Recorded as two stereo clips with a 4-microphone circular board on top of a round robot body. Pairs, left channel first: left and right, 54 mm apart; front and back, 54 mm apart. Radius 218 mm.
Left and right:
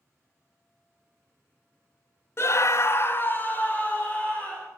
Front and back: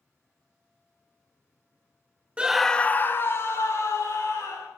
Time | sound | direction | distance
2.4 | a scream | 115° left | 0.8 m